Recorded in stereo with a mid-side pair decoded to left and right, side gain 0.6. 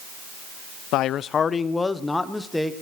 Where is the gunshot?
I don't hear a gunshot.